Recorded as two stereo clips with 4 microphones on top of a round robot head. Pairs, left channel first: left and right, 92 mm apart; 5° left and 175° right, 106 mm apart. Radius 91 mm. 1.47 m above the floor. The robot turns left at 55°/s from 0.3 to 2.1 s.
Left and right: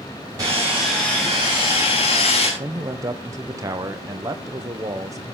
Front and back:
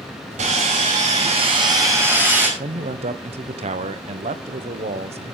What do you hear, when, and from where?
0.4 s sawing: 155° right, 5 m; by 2.5 s 115° left, 5 m
2.6 s a man speaking: 150° right, 0.9 m